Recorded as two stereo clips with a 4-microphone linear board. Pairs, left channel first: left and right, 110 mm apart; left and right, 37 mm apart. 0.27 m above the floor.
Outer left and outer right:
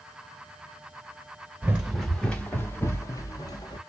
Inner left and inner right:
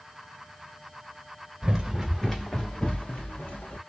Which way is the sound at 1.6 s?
15° right (ahead or behind).